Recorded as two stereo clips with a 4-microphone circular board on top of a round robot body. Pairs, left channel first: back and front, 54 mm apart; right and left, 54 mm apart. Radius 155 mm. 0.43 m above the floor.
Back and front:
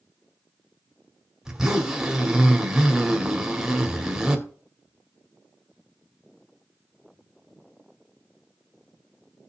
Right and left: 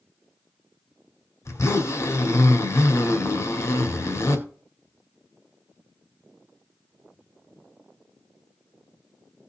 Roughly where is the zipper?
Right.